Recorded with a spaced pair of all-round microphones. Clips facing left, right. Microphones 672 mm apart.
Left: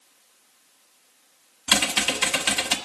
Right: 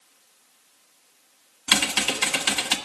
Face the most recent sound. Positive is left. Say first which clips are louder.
# left 1 dB
turn(degrees=10)  # may be behind; listen again after turning